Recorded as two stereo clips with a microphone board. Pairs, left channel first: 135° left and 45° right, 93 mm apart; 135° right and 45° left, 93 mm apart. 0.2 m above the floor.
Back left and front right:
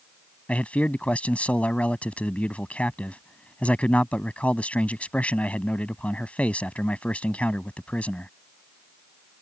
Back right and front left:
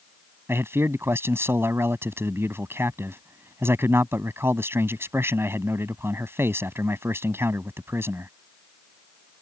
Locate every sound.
0.5 s a man speaking: 75° left